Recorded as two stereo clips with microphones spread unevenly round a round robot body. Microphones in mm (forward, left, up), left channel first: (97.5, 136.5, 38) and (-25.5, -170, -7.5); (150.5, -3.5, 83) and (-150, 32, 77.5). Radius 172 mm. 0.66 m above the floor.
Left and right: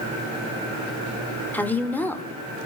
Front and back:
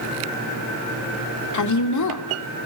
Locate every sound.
1.5 s a woman speaking: 20° right, 2.5 m